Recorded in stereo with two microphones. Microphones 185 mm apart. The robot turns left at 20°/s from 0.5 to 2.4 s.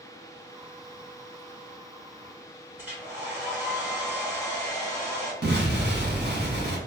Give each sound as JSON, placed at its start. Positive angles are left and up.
{"t": 2.8, "sound": "a hair dryer", "side_deg": -10, "distance_m": 1.7}
{"t": 5.4, "sound": "an explosion", "side_deg": -65, "distance_m": 1.5}